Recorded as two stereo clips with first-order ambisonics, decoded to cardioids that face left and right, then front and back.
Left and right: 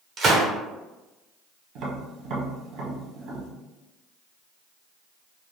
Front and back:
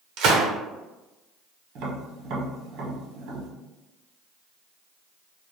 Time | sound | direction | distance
0.2 | a gunshot | 150° right | 0.7 m
1.8 | tapping | 140° right | 0.8 m